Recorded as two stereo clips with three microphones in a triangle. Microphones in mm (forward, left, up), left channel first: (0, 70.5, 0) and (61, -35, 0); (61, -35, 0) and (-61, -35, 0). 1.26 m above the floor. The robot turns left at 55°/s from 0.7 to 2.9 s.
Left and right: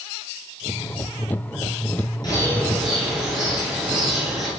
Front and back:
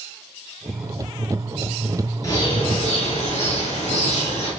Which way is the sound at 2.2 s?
65° left.